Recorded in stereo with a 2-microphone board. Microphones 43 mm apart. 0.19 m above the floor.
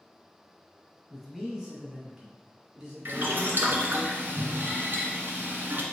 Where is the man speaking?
Centre (ahead or behind), 1.6 m; by 4.0 s 10° right (ahead or behind), 1.9 m.